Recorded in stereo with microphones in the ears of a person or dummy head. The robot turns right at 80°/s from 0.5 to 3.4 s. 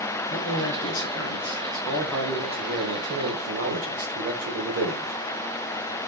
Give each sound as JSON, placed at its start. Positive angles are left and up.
{"t": 0.3, "sound": "a man speaking", "azimuth_deg": 50, "distance_m": 3.5}